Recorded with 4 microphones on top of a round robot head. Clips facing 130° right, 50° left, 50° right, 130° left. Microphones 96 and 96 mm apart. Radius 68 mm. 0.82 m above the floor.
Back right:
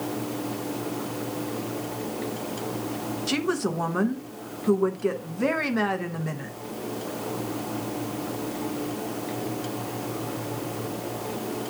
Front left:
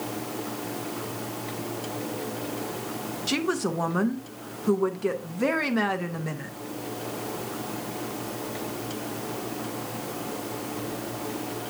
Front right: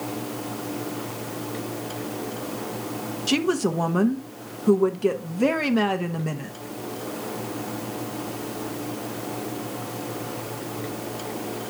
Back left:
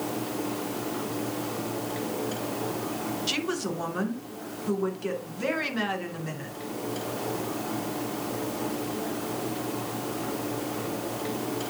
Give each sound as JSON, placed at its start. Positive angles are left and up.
{"t": 3.3, "sound": "a woman speaking", "azimuth_deg": -35, "distance_m": 0.8}